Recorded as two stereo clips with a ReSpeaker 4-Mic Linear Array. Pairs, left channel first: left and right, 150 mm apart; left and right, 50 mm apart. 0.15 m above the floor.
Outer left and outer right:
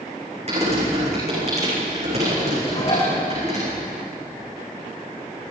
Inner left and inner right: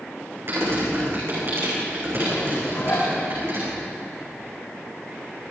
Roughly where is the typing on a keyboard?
Right.